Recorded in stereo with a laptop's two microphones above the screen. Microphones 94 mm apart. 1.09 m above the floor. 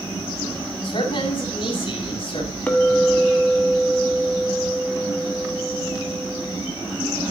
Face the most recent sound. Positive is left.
turn(degrees=15)  # may be behind; listen again after turning